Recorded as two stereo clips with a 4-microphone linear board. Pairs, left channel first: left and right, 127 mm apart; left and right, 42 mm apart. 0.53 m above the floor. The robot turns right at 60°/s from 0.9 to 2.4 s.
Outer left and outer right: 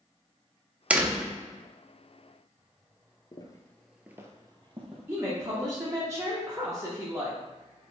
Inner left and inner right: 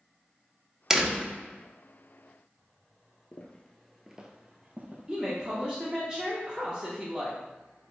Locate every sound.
0.9 s a door slam: 10° right (ahead or behind), 0.7 m; by 1.3 s centre (ahead or behind), 0.7 m
3.3 s footsteps: 35° left (ahead or behind), 0.7 m; by 5.7 s 60° right (ahead or behind), 1.4 m
5.1 s a woman speaking: 20° right (ahead or behind), 0.8 m